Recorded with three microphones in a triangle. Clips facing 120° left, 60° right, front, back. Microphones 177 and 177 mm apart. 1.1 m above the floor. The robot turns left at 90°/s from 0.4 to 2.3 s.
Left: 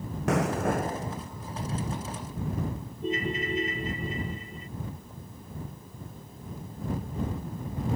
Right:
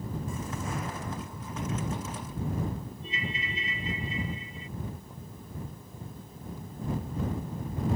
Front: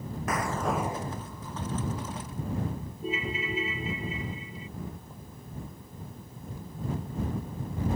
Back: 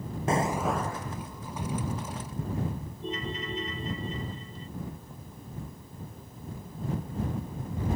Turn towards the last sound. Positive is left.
turn(degrees=85)